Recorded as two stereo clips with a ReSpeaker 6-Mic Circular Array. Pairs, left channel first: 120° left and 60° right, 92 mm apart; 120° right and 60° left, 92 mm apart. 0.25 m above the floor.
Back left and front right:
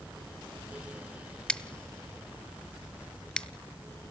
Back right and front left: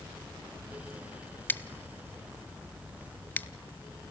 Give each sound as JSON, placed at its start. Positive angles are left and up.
{"t": 1.5, "sound": "scissors", "azimuth_deg": -170, "distance_m": 1.2}